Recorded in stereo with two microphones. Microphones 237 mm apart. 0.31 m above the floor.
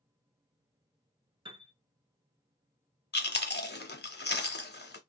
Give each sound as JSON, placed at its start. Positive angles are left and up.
{"t": 1.4, "sound": "a piano", "side_deg": -20, "distance_m": 0.8}
{"t": 3.1, "sound": "chewing", "side_deg": 45, "distance_m": 0.7}